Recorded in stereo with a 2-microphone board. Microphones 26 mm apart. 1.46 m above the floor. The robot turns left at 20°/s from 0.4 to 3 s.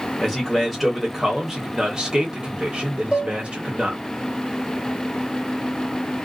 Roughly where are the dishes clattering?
Centre.